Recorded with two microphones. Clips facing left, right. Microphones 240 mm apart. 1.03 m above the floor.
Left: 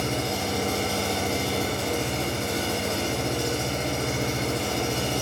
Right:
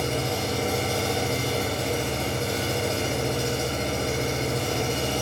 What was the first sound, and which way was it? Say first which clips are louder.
An engine running: right 1 dB; 35° right (ahead or behind).